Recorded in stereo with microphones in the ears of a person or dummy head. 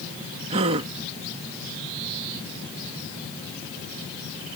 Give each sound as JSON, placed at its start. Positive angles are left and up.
{"t": 0.5, "sound": "a gasp", "side_deg": -25}